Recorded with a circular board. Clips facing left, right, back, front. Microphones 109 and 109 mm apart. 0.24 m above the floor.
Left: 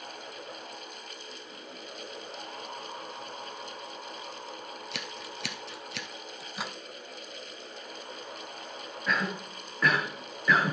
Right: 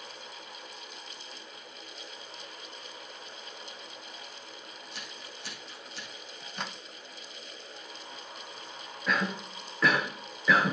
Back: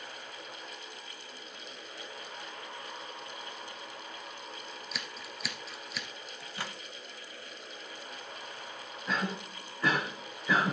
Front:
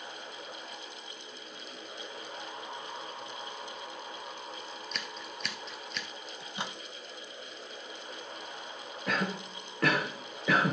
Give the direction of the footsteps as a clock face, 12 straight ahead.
I don't hear footsteps.